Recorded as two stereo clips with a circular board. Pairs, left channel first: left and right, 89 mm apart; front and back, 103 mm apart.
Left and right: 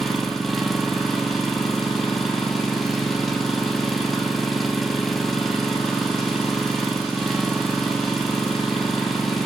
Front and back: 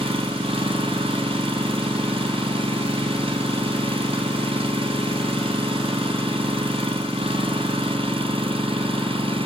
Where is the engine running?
Straight behind, 2 m.